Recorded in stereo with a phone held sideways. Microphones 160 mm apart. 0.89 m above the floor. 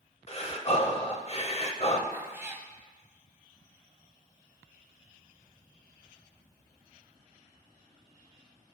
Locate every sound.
0.3 s breathing: 45° left (ahead or behind), 0.8 m
2.1 s a cat meowing: 15° right (ahead or behind), 0.8 m